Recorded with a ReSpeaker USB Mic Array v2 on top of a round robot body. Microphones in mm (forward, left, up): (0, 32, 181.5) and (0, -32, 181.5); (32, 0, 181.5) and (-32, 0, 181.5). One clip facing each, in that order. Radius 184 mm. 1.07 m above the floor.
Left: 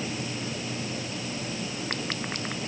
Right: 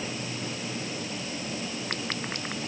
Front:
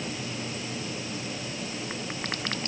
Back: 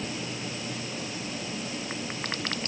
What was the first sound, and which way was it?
Only background noise.